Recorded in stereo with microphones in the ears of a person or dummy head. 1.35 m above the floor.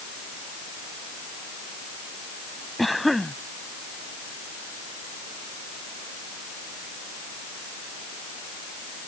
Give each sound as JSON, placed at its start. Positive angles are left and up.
{"t": 2.8, "sound": "a cough", "side_deg": 0}